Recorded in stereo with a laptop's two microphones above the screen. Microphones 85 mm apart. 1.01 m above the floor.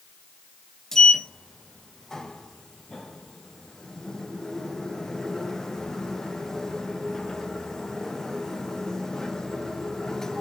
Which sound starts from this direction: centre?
A sliding door, at 0.9 s.